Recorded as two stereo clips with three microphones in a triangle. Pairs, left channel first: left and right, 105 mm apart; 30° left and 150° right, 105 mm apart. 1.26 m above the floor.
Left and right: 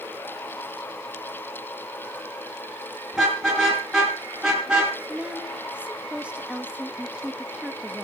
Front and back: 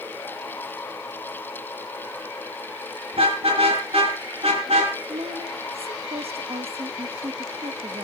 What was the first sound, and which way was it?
A car horn, straight behind.